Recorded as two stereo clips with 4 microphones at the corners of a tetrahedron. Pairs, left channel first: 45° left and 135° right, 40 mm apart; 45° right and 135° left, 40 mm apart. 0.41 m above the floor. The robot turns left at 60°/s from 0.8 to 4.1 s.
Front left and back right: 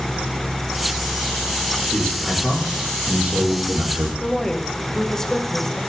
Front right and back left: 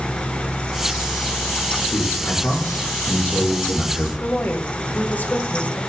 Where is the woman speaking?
25° right, 1.8 m.